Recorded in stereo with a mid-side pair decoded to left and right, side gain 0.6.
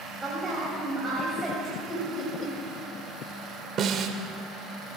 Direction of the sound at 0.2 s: 15° right.